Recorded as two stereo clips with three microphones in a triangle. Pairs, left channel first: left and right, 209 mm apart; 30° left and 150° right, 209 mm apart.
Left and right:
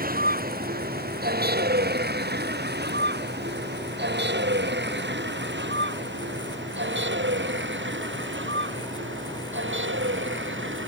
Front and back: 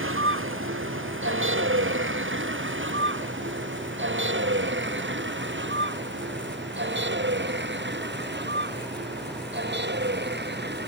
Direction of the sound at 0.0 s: 135° right.